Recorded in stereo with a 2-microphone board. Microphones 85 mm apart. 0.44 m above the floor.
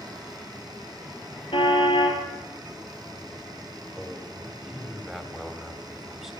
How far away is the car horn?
About 4 m.